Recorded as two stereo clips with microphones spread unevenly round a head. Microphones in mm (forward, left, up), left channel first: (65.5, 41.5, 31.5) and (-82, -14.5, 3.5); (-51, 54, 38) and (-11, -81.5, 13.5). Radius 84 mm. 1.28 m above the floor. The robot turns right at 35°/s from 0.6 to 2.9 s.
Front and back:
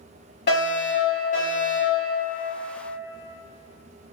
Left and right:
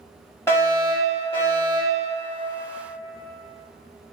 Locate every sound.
0.5 s a fire alarm: 25° left, 1.7 m; by 2.0 s 80° left, 1.7 m